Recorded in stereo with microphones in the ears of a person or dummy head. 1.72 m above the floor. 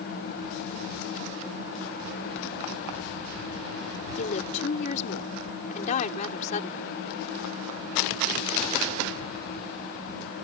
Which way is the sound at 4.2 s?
50° left (ahead or behind).